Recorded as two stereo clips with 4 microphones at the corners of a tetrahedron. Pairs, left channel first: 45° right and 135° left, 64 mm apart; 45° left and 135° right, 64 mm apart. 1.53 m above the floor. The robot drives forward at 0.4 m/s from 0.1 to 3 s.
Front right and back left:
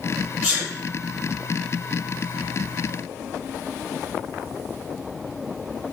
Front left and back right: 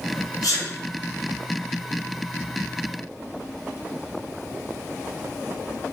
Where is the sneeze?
50° left, 1.0 m; by 0.7 s 55° left, 0.9 m.